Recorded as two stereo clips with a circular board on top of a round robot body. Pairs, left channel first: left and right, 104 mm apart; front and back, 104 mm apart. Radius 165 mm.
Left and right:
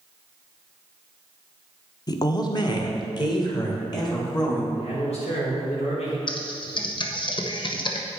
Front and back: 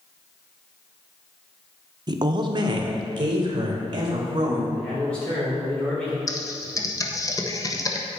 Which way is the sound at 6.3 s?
55° left.